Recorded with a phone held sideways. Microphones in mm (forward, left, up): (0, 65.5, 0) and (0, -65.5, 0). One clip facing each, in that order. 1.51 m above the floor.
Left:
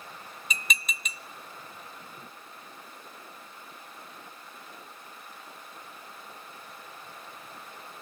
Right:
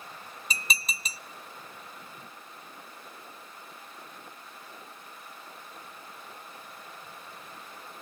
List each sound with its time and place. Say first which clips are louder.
0.5 s dishes clattering: even; 35° right (ahead or behind), 0.5 m